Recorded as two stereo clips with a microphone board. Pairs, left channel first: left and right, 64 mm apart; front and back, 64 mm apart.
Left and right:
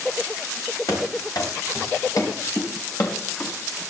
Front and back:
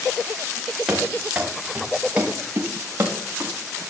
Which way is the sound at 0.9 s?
100° left.